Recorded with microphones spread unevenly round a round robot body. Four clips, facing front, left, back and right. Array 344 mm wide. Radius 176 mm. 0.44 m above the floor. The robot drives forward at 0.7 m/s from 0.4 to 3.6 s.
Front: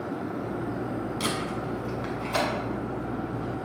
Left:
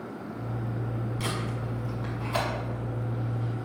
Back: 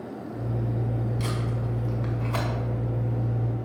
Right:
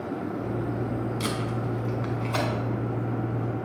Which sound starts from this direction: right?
Tape being pulled, at 1.2 s.